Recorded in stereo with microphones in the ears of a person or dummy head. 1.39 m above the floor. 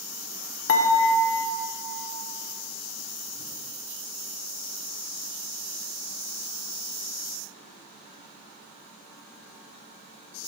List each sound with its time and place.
0.7 s dishes clattering: 70° left (ahead or behind), 1.0 m